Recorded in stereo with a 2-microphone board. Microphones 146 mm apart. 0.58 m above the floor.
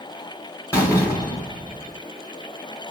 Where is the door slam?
20° left (ahead or behind), 3 m.